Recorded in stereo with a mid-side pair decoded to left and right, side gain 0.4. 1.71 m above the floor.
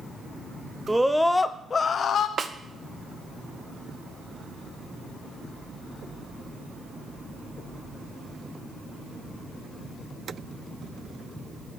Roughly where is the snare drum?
Ahead right.